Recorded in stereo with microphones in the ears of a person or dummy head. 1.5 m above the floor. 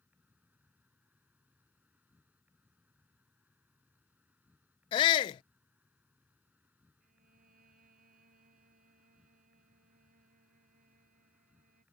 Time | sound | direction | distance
0.0 | an insect | 10° right (ahead or behind) | ?
4.9 | a shout | 25° left (ahead or behind) | ?
7.0 | a violin | 45° right (ahead or behind) | ?